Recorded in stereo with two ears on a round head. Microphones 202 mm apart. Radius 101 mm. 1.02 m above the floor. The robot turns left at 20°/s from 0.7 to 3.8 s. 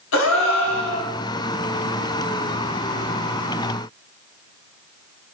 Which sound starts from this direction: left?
A gasp, at 0.1 s.